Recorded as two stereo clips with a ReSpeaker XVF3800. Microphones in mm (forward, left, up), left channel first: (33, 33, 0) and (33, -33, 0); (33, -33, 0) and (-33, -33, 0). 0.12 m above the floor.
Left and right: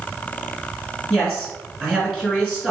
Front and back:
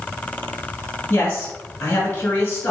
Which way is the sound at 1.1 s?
5° right.